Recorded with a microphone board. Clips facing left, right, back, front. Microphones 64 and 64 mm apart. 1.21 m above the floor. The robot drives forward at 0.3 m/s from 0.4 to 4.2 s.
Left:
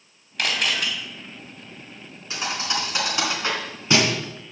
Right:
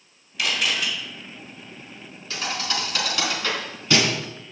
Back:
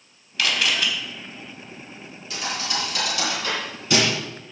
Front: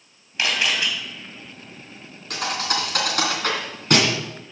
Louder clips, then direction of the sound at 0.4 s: Even, even; 60° left.